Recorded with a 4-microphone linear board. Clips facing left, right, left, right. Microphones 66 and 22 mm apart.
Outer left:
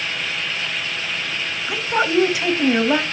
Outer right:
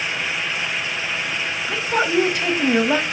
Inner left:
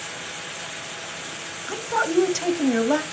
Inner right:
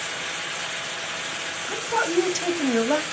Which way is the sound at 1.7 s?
5° left (ahead or behind).